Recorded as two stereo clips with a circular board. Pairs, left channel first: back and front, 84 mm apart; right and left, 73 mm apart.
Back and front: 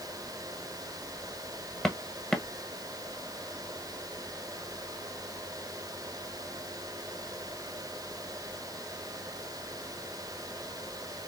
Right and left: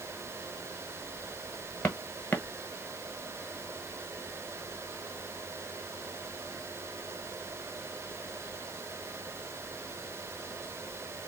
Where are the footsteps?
115° right, 1.3 m.